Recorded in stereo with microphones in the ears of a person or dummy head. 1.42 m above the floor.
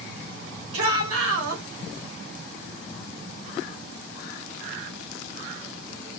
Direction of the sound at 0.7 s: 80° right.